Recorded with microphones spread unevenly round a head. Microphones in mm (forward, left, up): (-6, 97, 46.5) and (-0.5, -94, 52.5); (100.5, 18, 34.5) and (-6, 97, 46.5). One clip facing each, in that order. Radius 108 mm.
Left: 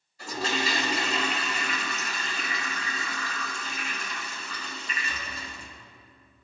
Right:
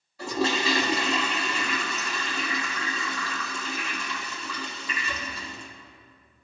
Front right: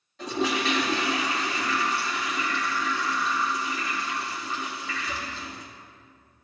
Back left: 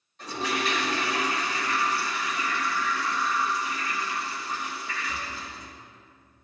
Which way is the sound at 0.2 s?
60° right.